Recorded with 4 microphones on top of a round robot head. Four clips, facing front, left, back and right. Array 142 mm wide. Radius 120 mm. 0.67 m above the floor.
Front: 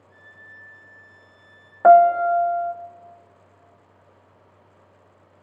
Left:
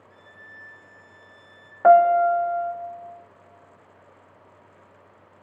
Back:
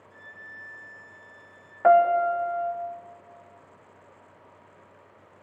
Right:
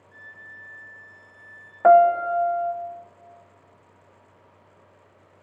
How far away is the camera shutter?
I don't hear a camera shutter.